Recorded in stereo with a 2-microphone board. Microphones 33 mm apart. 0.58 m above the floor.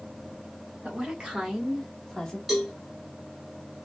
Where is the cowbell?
5° right (ahead or behind), 1.3 m.